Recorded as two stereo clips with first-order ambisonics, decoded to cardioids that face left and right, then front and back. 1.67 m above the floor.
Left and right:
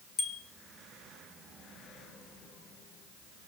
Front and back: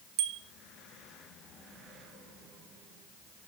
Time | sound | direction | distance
0.2 | a bicycle bell | 160° left | 2.5 m